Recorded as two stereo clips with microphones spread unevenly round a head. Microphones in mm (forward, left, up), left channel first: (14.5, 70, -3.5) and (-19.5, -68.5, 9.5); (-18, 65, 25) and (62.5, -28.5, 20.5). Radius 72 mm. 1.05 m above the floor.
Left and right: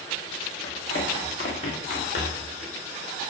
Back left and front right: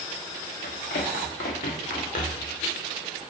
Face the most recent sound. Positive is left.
turn(degrees=115)